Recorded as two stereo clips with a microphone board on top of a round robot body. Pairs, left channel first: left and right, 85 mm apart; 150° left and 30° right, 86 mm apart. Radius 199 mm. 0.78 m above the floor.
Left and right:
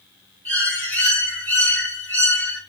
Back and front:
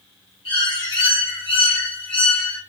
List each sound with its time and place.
0.5 s a bird: 160° left, 9 m